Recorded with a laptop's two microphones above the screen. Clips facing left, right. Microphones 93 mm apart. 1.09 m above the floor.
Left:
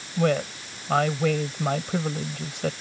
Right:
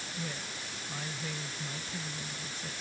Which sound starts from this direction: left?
A woman speaking, at 0.2 s.